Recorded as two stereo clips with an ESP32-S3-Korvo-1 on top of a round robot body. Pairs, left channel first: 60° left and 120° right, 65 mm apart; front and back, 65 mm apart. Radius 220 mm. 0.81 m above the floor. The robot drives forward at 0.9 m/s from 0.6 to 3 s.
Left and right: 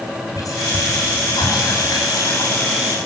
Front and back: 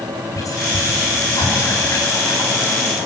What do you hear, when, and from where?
0.3 s whispering: 30° left, 5.5 m; by 2.5 s 45° left, 4 m